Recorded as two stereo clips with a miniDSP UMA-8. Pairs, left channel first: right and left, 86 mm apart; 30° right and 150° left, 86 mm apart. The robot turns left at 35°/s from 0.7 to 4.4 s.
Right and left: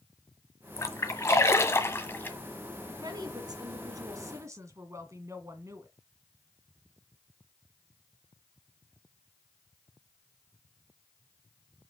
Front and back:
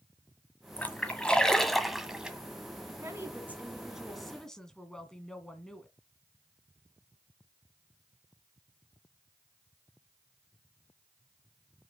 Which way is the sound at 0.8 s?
85° right.